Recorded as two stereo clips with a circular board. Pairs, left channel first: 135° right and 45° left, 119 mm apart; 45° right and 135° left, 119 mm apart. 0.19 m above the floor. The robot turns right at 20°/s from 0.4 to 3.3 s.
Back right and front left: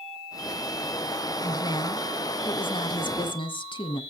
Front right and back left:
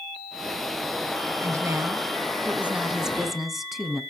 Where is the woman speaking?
175° right, 1.4 m; by 4.0 s 135° right, 1.4 m.